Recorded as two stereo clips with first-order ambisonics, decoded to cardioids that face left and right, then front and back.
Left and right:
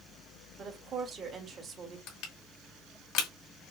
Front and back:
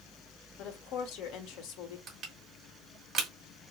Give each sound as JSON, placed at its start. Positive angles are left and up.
{"t": 0.6, "sound": "a woman speaking", "azimuth_deg": -25, "distance_m": 1.7}
{"t": 2.1, "sound": "crushing", "azimuth_deg": 115, "distance_m": 2.0}